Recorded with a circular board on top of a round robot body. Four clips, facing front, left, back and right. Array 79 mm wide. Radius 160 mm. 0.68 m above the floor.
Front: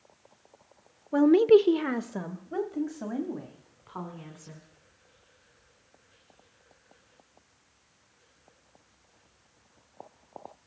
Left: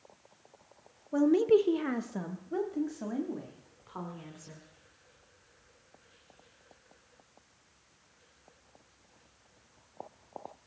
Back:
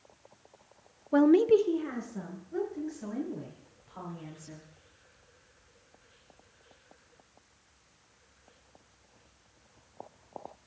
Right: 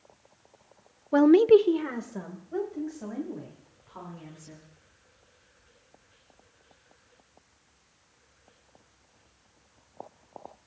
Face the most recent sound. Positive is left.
turn(degrees=25)